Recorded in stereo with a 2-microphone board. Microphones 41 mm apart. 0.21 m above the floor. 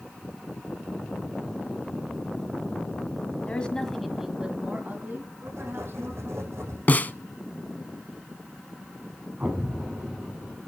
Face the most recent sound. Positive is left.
turn(degrees=-45)  # may be behind; listen again after turning